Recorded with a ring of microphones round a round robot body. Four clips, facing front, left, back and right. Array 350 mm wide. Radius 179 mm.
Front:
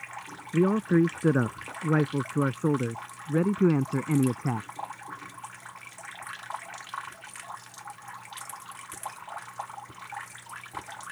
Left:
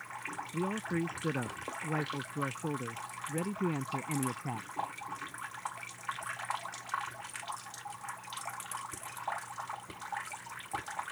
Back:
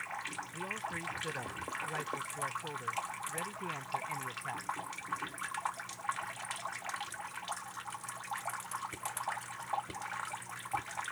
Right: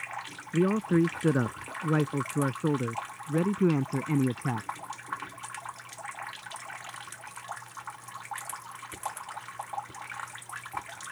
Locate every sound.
0.5 s a man speaking: 30° right; by 4.7 s 25° right